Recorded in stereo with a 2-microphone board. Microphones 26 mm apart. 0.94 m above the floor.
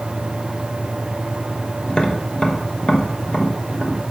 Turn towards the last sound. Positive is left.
turn(degrees=35)  # may be behind; listen again after turning